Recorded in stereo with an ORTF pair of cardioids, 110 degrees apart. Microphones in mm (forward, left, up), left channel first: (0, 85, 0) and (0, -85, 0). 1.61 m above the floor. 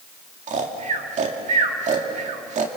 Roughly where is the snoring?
Ahead right.